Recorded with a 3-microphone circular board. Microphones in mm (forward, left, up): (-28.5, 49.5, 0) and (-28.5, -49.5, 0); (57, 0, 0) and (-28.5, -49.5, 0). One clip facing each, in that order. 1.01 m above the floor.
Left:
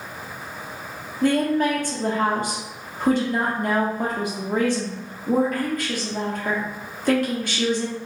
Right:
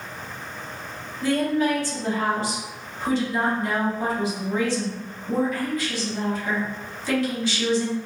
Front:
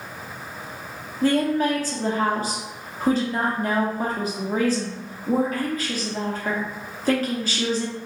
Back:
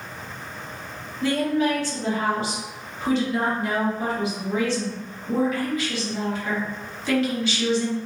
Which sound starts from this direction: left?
A woman speaking, at 1.2 s.